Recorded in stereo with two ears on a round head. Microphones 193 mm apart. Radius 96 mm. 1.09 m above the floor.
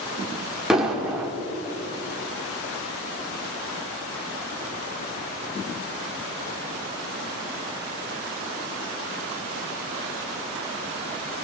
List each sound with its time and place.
0.7 s an explosion: 5° right (ahead or behind), 3 m